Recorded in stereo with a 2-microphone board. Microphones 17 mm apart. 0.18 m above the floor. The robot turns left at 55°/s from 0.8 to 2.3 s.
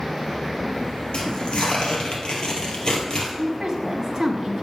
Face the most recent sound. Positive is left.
turn(degrees=-25)  # may be behind; listen again after turning